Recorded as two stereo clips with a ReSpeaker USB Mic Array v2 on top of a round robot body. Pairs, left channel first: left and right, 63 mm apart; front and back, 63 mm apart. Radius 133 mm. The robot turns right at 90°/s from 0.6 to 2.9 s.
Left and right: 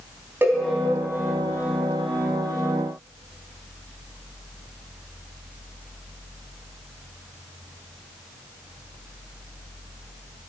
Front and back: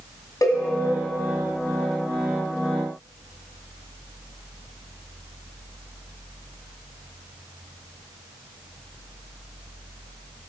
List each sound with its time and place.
0.4 s a cowbell: 35° right, 1.9 m